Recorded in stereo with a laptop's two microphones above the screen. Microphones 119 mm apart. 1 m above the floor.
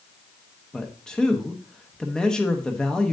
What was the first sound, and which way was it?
A man speaking, 5° left (ahead or behind).